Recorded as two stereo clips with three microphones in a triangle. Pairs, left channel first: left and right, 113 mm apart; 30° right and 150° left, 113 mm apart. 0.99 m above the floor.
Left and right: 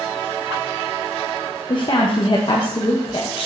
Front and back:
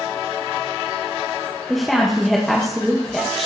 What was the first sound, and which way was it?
A woman speaking, 60° left.